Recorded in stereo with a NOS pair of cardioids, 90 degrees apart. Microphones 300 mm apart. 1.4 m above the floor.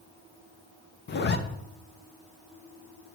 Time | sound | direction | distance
1.1 | a zipper | 35° left | 0.9 m